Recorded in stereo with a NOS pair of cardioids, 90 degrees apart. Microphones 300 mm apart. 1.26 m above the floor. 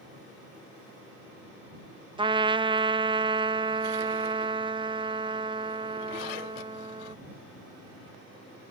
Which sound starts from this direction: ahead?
A trumpet, at 2.2 s.